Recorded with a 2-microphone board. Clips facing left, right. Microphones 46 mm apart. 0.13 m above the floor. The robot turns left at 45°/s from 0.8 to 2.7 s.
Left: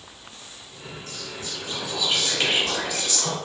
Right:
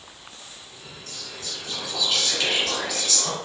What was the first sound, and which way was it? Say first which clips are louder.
Whispering: left 1 dB; 20° left (ahead or behind).